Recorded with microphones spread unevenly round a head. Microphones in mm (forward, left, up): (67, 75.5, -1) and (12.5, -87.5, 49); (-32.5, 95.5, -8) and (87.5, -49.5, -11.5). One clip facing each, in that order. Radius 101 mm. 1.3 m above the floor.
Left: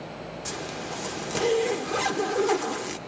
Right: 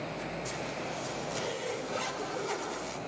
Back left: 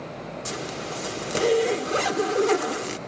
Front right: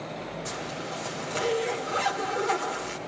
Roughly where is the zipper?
Left.